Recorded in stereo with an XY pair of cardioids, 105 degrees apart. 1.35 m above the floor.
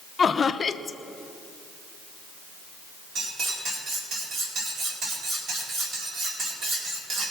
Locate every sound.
0.2 s laughter: 35° left, 0.8 m
3.1 s cutlery clinking: 65° right, 4 m